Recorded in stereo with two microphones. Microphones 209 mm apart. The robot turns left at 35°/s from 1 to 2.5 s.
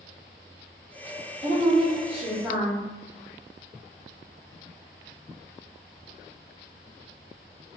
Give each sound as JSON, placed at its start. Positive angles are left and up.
{"t": 1.4, "sound": "a woman speaking", "azimuth_deg": -140, "distance_m": 1.6}